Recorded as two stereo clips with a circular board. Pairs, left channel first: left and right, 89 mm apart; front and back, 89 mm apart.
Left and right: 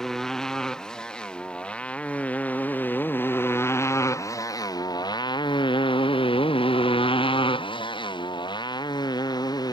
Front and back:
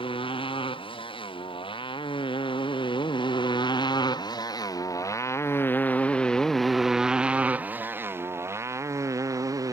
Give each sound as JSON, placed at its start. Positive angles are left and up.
{"t": 0.0, "sound": "a motorcycle", "azimuth_deg": 5}